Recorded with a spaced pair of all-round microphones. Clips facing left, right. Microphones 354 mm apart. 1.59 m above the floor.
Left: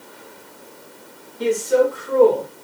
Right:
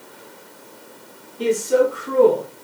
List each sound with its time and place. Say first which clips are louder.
1.4 s a man speaking: even; 40° right (ahead or behind), 1.3 m; by 2.5 s 55° right (ahead or behind), 1.2 m